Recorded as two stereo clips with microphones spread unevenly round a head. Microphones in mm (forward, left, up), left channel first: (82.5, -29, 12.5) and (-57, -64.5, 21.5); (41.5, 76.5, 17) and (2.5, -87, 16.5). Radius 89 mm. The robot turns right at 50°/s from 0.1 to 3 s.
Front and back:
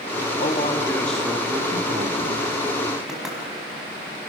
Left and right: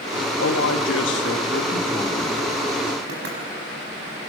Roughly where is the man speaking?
Ahead left.